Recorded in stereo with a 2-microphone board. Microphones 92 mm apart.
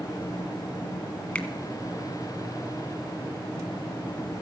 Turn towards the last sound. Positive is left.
turn(degrees=15)  # may be behind; listen again after turning